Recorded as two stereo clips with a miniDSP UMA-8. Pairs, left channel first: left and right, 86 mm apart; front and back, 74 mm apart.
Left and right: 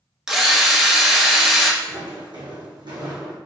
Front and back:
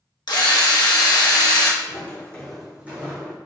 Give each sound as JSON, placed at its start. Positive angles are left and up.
{"t": 0.3, "sound": "a drill", "azimuth_deg": -5, "distance_m": 0.9}
{"t": 1.8, "sound": "footsteps", "azimuth_deg": -50, "distance_m": 1.8}